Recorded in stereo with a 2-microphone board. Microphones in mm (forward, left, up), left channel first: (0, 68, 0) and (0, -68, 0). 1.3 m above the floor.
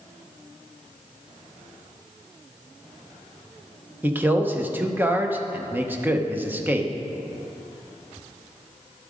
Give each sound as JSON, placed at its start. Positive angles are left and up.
{"t": 4.0, "sound": "a man speaking", "side_deg": -15, "distance_m": 0.9}